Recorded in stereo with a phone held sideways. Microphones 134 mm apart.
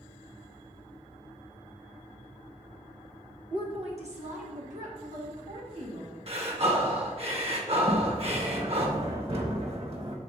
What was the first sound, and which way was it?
A woman speaking, 35° right (ahead or behind).